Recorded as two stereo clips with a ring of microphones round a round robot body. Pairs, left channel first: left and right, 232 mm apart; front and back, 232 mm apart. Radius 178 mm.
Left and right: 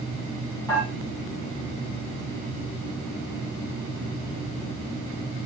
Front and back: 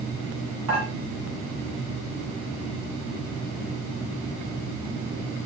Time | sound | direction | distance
0.7 | dishes clattering | 170° left | 7 m